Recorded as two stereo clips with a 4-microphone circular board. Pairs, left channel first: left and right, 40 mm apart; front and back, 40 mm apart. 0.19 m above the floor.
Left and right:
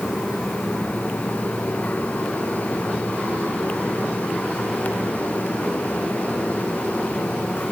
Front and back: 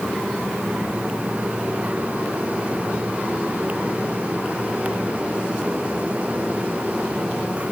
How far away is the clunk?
No clunk in this recording.